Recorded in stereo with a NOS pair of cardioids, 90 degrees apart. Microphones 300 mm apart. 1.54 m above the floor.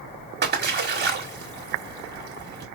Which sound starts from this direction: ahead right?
A splash, at 0.4 s.